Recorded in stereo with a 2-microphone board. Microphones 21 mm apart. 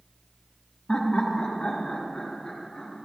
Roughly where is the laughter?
Left.